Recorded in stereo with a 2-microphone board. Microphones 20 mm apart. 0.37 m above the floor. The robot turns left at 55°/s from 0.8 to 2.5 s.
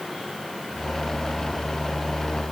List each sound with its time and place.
Only background noise.